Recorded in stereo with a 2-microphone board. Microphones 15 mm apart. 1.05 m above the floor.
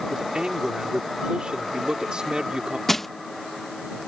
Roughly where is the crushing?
Centre.